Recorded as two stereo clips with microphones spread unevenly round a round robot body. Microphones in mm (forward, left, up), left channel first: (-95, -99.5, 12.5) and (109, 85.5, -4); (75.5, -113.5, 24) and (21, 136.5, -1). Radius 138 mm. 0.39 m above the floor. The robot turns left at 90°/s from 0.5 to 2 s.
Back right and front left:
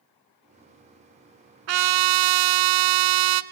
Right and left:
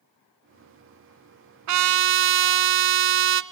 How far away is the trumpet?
About 0.7 m.